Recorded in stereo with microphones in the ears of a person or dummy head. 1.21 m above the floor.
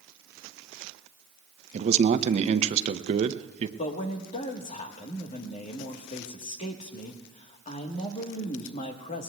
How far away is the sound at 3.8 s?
About 1.4 m.